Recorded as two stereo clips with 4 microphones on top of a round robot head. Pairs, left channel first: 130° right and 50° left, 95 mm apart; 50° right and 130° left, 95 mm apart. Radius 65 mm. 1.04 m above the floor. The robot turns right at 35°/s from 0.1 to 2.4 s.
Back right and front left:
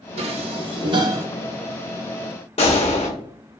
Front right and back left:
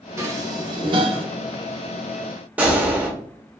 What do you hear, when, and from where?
0.2 s dishes clattering: 65° left, 0.5 m; by 1.3 s 105° left, 0.5 m
2.6 s a gunshot: 155° right, 0.6 m